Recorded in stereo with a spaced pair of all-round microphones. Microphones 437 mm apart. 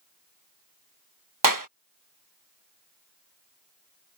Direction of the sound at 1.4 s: 45° right (ahead or behind).